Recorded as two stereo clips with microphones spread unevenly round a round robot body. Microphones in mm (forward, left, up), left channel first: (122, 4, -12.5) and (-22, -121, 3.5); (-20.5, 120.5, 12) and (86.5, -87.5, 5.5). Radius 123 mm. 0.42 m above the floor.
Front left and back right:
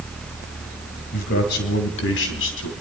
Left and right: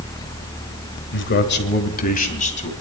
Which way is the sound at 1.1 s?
85° left.